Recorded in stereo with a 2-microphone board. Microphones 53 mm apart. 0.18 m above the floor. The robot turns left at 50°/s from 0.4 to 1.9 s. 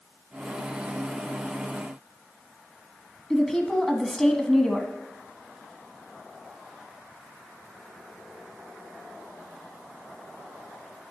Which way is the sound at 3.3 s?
10° left (ahead or behind).